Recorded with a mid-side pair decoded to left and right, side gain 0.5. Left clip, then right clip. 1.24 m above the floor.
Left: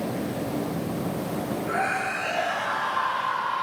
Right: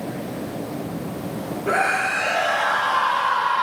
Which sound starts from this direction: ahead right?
A scream, at 1.7 s.